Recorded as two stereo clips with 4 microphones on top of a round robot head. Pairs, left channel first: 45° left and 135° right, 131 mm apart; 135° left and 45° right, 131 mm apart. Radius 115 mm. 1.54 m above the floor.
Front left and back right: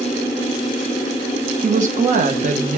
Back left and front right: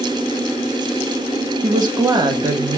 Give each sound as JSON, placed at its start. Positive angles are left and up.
{"t": 1.6, "sound": "a woman speaking", "azimuth_deg": -105, "distance_m": 1.2}